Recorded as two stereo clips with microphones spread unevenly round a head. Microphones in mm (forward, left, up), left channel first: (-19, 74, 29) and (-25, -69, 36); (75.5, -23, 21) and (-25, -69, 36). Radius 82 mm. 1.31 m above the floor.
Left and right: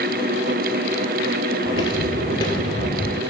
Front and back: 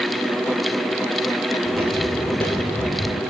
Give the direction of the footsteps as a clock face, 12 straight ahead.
7 o'clock.